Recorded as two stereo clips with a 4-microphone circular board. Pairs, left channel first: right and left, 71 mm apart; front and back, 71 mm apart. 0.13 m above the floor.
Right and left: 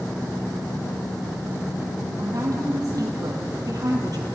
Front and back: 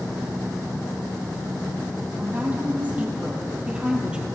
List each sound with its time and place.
2.2 s a woman speaking: 115° left, 4 m; by 4.3 s 105° left, 3 m